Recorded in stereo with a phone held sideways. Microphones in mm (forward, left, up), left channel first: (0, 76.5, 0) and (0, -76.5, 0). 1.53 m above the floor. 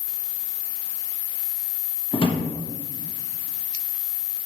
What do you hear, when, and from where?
2.1 s a drawer: 35° left (ahead or behind), 1.2 m